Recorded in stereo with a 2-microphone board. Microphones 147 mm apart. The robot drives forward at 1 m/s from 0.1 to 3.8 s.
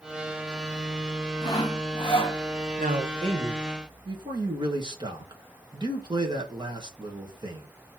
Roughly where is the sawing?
Left.